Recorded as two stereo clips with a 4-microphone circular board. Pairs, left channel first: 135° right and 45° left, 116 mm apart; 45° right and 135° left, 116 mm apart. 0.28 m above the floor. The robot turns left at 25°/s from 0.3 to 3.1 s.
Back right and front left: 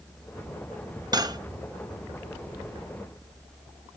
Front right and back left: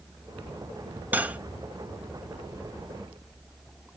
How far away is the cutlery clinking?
About 0.6 m.